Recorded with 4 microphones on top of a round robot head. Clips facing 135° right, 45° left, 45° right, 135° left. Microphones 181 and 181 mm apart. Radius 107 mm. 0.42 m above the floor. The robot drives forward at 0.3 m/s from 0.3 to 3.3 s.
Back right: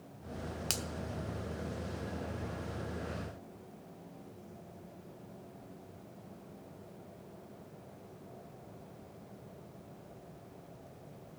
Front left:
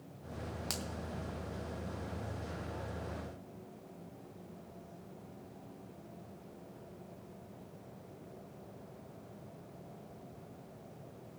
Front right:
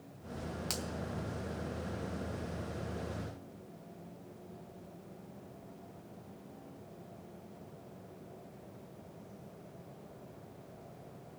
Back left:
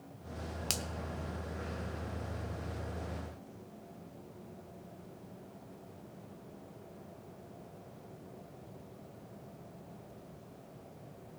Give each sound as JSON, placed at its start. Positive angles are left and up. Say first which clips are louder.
{"t": 0.7, "sound": "a finger snap", "louder": "back right 1 dB, front right 1 dB", "azimuth_deg": 180, "distance_m": 0.9}